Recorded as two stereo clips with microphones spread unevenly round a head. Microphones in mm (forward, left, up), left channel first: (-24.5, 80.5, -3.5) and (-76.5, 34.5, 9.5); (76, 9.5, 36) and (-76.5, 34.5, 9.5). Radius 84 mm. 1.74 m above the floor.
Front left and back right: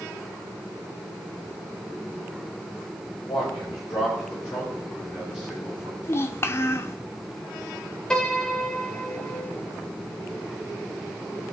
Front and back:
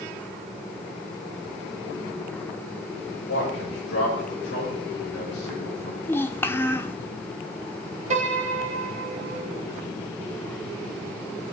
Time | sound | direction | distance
3.3 | a man speaking | 20° right | 6.5 m
6.0 | a child speaking | 20° left | 0.7 m
8.1 | a piano | 120° left | 2 m